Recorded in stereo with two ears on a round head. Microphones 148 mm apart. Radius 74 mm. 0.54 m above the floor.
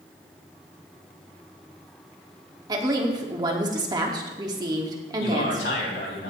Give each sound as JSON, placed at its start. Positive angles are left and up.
{"t": 2.7, "sound": "a woman speaking", "side_deg": -25, "distance_m": 1.3}
{"t": 5.2, "sound": "a man speaking", "side_deg": 75, "distance_m": 4.0}